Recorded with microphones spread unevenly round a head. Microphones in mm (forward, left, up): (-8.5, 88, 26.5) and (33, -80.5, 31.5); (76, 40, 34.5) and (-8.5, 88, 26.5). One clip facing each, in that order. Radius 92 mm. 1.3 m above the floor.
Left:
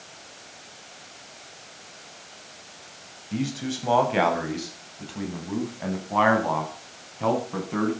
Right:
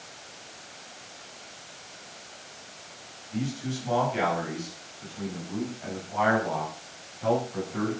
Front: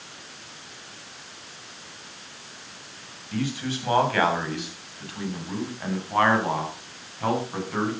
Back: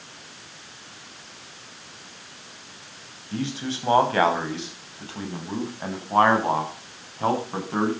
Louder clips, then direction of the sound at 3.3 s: Left 3 dB, even; 90° left.